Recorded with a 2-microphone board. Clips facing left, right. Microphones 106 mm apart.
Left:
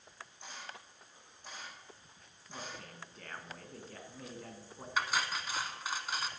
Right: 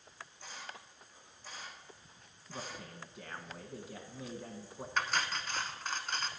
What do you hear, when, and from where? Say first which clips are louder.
0.4 s a camera shutter: even; 20° left (ahead or behind), 4.5 m
2.5 s a man speaking: right 1 dB; 10° right (ahead or behind), 1.2 m
5.0 s cutlery clinking: even; 5° left (ahead or behind), 0.8 m